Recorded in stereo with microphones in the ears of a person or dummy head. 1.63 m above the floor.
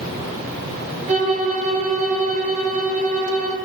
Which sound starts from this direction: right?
A violin, at 1.1 s.